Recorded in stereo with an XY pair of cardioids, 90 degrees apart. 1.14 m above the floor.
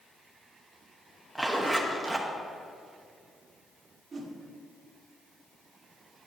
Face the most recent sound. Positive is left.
turn(degrees=-45)